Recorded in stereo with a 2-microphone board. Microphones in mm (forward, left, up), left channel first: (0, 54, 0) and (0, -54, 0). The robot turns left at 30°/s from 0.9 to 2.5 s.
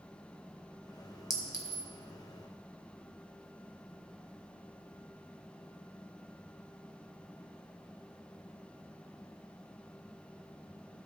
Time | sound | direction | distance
1.3 | a clink | 35° left (ahead or behind) | 1.2 m